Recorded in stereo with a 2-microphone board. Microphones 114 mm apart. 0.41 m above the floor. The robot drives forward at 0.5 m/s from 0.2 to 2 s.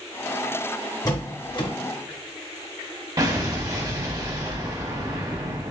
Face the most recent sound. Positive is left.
turn(degrees=-35)  # may be behind; listen again after turning